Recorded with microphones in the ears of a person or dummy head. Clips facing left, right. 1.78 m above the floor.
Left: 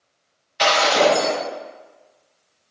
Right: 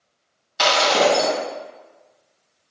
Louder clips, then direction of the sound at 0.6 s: Left 1 dB; 60° right (ahead or behind).